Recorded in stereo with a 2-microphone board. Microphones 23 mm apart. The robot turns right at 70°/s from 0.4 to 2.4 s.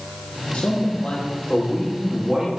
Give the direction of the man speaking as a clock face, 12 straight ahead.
10 o'clock.